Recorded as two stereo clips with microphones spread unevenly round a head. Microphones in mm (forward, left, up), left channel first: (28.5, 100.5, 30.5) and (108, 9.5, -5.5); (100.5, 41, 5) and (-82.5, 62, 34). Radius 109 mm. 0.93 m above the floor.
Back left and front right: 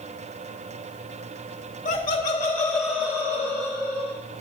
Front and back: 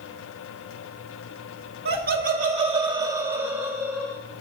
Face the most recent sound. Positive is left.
turn(degrees=-90)